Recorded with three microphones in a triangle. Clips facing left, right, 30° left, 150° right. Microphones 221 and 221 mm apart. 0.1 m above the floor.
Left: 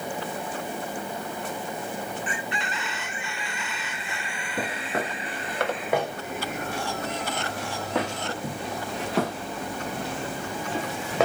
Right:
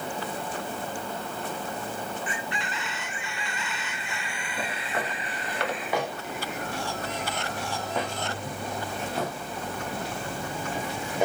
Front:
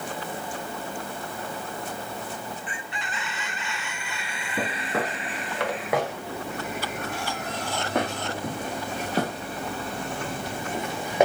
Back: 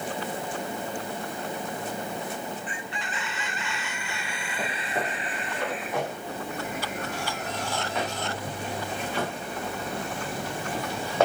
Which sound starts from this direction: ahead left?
Footsteps, at 4.6 s.